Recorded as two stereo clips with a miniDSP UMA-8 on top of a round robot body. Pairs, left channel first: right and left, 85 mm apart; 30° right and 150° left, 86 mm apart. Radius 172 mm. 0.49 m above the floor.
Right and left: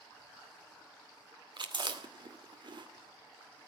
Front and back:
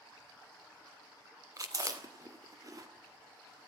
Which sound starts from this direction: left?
Chewing, at 1.6 s.